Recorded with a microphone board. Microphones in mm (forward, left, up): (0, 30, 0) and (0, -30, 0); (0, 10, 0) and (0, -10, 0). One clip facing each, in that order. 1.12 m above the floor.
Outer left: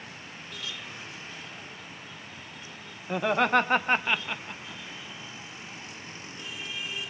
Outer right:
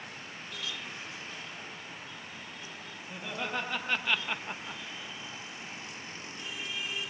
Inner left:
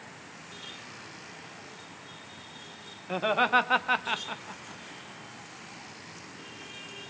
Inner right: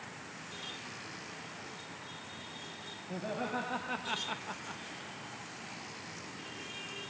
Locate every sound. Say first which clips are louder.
3.1 s laughter: outer left 13 dB, inner left 13 dB; 70° left (ahead or behind), 2 m; by 4.8 s 40° right (ahead or behind), 1.2 m